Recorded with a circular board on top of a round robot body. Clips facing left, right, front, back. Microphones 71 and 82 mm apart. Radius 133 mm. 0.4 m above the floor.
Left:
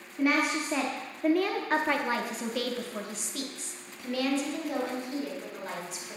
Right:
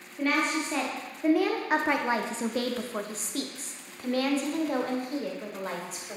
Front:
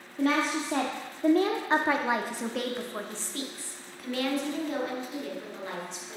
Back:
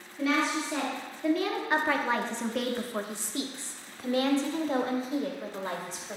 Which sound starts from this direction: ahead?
A woman speaking, at 0.2 s.